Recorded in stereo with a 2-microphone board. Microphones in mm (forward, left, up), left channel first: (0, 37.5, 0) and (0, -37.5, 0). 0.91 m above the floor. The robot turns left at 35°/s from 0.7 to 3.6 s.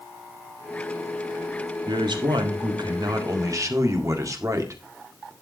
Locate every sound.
1.9 s a man speaking: 75° right, 1.9 m; by 5.3 s 135° right, 1.9 m